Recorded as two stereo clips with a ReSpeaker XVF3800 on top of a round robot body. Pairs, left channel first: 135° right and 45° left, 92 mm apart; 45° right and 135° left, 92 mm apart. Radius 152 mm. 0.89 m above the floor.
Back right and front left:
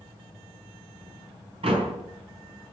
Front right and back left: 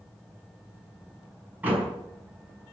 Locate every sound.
1.6 s a door slam: 65° left, 5.5 m